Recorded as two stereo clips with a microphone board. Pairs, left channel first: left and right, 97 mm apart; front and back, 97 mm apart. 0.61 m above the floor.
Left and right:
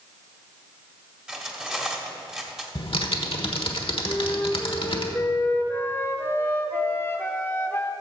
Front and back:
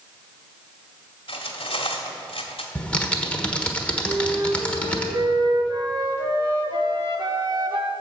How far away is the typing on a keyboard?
About 1.2 m.